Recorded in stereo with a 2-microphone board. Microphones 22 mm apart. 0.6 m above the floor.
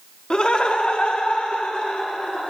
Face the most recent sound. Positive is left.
turn(degrees=65)  # may be behind; listen again after turning